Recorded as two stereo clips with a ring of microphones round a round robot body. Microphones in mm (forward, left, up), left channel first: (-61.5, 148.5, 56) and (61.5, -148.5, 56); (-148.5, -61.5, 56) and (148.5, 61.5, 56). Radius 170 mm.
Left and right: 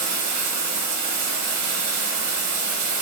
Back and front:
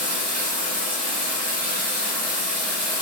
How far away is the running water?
About 0.8 m.